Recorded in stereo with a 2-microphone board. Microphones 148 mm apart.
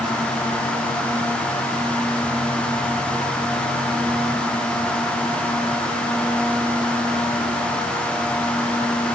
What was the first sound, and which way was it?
Only background noise.